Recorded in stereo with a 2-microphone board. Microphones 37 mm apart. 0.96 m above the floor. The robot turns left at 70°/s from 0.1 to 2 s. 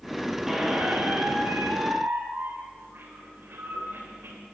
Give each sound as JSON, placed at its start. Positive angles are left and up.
{"t": 0.5, "sound": "a squeak", "azimuth_deg": -5, "distance_m": 3.0}